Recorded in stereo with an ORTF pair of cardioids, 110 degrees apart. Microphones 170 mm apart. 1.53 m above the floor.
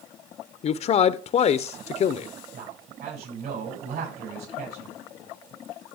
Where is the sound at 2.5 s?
65° right, 8 m.